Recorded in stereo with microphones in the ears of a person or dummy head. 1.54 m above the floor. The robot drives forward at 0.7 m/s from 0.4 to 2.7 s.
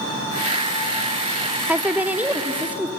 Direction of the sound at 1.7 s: 10° right (ahead or behind).